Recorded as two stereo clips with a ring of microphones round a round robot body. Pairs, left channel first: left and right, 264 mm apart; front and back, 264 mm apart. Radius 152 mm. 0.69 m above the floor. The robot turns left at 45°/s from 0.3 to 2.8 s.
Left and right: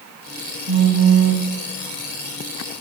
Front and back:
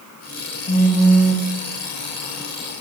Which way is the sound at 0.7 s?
60° right.